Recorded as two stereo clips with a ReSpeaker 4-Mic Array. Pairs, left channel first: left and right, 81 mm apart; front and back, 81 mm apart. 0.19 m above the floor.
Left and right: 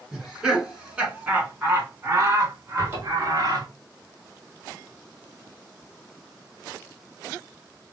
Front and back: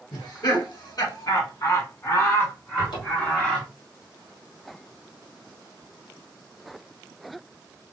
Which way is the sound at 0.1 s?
5° right.